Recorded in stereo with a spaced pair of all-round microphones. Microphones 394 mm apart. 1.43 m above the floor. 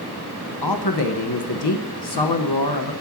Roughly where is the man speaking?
Left.